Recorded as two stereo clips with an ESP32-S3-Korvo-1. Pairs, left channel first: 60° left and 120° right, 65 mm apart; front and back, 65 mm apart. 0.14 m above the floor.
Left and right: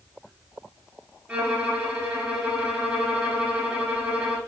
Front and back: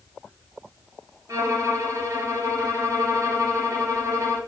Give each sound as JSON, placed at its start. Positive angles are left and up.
{"t": 1.3, "sound": "a violin", "azimuth_deg": 170, "distance_m": 0.9}